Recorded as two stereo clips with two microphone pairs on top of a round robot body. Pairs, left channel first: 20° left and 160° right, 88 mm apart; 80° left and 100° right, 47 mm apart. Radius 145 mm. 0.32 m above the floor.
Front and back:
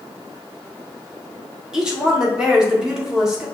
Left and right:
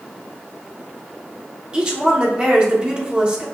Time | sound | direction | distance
1.7 | a woman speaking | 95° right | 1.3 m